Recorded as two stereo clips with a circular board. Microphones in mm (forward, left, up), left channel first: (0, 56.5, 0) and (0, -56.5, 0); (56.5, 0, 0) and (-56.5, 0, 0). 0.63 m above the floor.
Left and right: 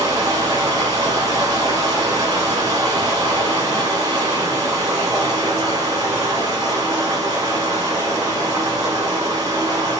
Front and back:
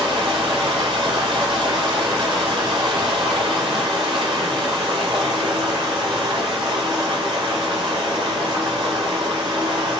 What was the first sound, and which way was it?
Running water, 140° right.